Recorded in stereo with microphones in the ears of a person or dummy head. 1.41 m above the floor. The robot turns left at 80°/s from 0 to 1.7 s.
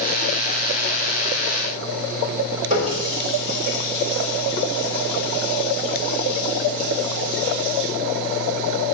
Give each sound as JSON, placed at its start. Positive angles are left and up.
{"t": 2.7, "sound": "a running tap", "side_deg": -35, "distance_m": 2.5}